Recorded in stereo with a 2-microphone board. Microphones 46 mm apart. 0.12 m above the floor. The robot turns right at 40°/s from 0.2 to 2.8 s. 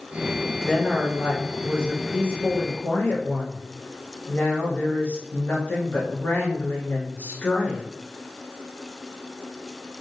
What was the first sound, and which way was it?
A woman speaking, 15° right.